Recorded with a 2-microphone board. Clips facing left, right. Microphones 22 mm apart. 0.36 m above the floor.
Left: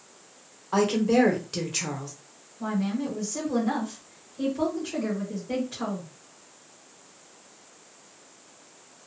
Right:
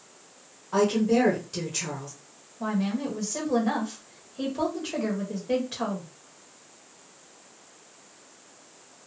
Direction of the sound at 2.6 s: 40° right (ahead or behind).